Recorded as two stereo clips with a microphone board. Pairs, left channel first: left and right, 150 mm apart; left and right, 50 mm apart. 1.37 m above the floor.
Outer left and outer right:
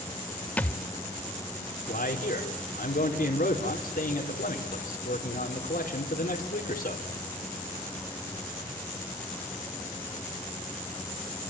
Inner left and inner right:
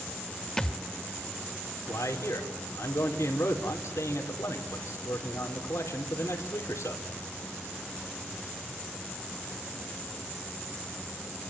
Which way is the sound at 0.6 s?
10° left (ahead or behind).